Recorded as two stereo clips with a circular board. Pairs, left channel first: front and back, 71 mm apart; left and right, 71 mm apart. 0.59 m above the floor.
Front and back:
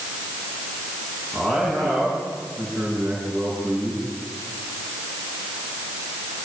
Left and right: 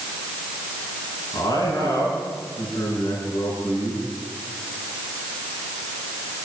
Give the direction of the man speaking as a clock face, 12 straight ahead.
9 o'clock.